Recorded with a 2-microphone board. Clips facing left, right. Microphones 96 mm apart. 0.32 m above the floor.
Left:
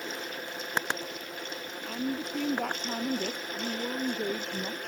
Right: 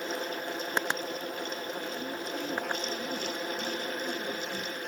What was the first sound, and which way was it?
A woman speaking, 65° left (ahead or behind).